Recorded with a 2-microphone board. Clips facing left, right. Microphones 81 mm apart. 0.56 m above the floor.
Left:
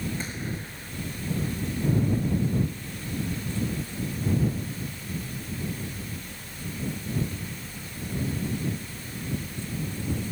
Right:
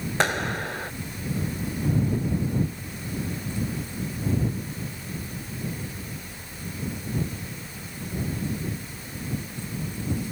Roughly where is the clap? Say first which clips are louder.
Right 9 dB; right.